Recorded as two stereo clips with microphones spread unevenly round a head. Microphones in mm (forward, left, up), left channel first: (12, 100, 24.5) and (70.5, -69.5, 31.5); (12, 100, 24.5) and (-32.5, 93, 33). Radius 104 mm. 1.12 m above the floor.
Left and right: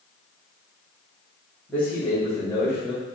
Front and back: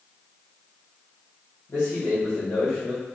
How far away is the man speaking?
About 1.8 m.